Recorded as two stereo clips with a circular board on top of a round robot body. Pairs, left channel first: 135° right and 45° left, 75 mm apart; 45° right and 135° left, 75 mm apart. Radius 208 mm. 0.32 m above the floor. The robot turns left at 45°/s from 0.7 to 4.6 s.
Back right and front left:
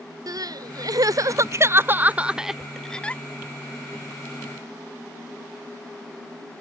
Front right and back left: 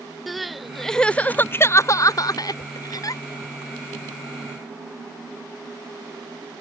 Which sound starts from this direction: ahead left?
Crying, at 0.3 s.